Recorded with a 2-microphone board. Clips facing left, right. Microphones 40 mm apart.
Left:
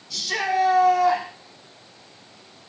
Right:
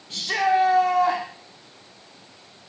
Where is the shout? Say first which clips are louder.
Right 3 dB; 40° right (ahead or behind), 6.5 m.